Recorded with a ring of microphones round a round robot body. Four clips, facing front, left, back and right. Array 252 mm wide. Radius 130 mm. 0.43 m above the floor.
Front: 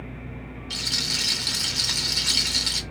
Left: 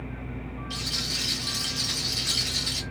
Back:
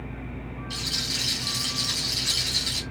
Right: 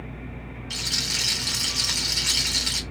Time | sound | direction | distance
0.7 | a rattle | 50° right | 0.9 m